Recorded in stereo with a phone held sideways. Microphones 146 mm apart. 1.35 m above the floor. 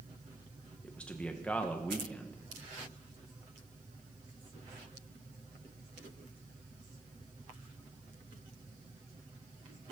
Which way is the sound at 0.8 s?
10° left (ahead or behind).